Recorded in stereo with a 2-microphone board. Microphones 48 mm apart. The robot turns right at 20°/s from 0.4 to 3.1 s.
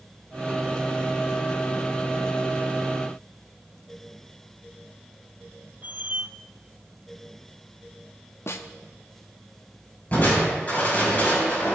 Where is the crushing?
40° left (ahead or behind), 5.5 m.